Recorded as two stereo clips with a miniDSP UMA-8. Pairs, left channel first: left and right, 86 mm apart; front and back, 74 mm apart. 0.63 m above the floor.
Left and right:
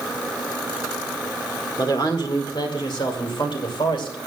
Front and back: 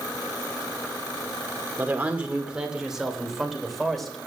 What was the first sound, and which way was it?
A woman speaking, 115° left.